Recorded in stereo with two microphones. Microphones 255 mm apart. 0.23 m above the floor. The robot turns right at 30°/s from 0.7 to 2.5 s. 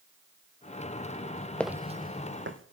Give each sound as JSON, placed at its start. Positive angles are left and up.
{"t": 1.6, "sound": "footsteps", "side_deg": 5, "distance_m": 0.6}